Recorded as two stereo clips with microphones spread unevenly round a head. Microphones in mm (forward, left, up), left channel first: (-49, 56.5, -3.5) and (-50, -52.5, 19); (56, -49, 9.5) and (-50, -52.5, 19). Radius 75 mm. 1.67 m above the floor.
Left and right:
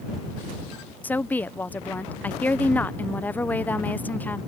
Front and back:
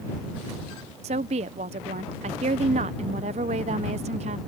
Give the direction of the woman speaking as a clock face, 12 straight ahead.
6 o'clock.